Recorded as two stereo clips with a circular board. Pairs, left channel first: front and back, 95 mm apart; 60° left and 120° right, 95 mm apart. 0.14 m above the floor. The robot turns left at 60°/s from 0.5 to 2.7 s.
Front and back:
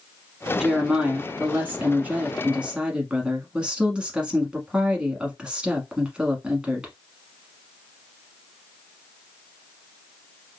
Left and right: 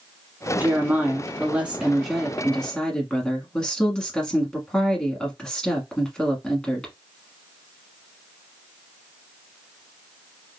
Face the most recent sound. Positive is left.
turn(degrees=125)